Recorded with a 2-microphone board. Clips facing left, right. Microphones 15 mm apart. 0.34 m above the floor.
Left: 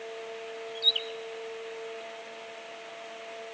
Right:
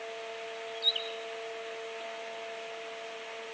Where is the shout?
I don't hear a shout.